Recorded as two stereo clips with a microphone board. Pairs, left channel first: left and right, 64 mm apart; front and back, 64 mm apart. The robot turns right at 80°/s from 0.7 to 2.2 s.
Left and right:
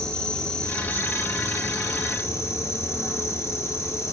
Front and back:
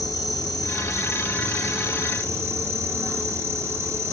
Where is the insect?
15° left, 2.5 m; by 4.1 s 135° left, 2.5 m.